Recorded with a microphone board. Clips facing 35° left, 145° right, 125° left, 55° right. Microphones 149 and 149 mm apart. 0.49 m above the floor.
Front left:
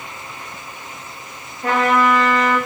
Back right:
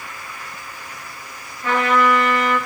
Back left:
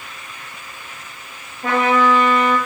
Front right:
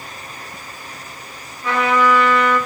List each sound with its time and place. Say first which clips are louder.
1.6 s a trumpet: front left 1 dB, back left 1 dB; 85° left, 5 m